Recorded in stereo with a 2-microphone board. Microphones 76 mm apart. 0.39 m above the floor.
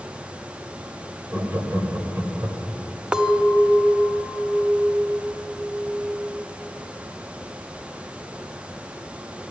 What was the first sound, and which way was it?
Laughter, 25° right (ahead or behind).